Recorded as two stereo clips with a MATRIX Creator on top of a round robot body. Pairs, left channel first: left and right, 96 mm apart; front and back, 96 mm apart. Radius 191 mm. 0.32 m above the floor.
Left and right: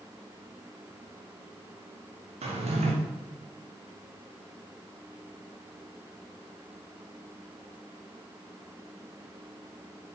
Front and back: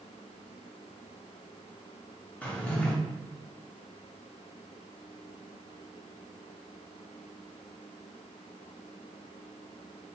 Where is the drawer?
80° right, 0.5 m.